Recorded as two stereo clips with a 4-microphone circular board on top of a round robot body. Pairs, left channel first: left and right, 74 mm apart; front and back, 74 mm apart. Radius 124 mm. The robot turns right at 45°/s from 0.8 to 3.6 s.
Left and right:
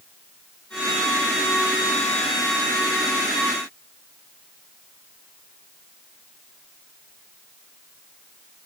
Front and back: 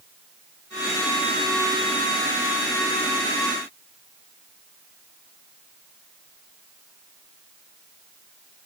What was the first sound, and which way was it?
Only background noise.